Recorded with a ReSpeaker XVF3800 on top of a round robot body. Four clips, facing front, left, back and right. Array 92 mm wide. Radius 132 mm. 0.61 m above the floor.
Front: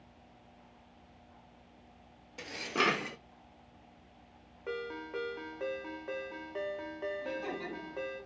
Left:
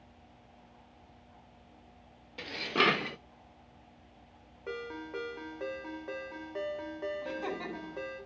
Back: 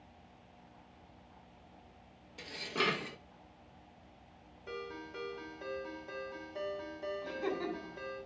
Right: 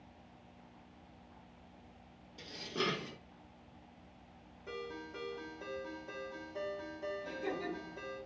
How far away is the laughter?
About 8 m.